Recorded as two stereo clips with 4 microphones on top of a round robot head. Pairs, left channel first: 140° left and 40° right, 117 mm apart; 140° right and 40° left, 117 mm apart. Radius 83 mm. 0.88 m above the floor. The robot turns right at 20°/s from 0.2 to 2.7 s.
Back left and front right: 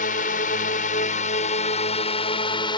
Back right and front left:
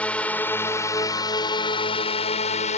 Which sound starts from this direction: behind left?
A drone, at 0.0 s.